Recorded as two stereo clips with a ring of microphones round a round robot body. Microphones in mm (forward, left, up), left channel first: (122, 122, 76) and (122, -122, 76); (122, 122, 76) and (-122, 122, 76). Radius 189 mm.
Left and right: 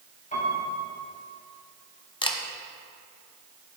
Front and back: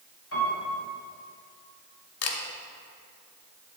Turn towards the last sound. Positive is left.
turn(degrees=20)